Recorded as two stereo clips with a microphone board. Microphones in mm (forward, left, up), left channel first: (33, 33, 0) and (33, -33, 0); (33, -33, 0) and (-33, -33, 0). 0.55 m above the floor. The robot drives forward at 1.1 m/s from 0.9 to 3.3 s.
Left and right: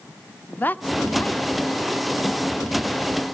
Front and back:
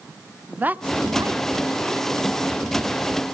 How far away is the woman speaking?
About 0.8 m.